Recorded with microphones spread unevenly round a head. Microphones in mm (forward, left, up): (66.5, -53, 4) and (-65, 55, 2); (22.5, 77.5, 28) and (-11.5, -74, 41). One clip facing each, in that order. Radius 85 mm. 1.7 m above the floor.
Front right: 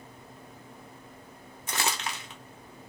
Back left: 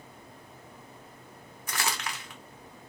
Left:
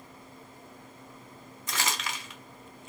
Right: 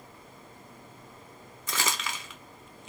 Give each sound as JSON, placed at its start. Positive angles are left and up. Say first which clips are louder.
{"t": 1.7, "sound": "crumpling", "louder": "front right 2 dB, right 1 dB", "azimuth_deg": -105, "distance_m": 0.5}